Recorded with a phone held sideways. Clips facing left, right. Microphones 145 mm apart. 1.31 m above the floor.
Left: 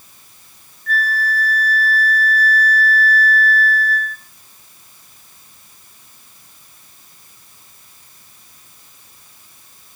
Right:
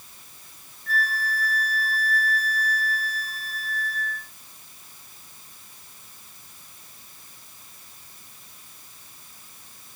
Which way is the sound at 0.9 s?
30° right (ahead or behind).